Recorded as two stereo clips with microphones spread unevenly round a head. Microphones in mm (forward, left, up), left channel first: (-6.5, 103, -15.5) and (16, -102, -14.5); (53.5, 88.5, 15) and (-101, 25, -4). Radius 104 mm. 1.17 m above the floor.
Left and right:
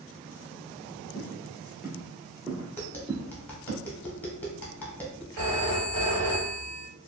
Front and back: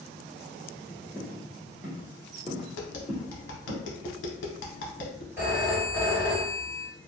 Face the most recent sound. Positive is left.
turn(degrees=-80)